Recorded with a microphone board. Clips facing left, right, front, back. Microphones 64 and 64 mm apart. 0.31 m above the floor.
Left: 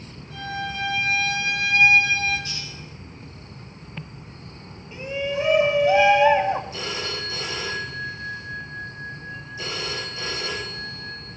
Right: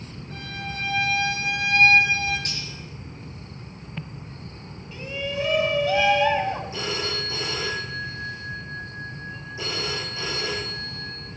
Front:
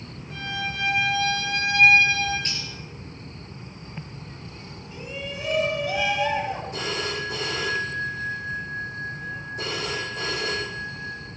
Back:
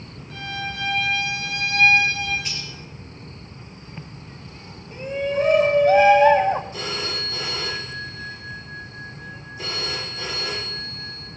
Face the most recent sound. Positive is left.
turn(degrees=-30)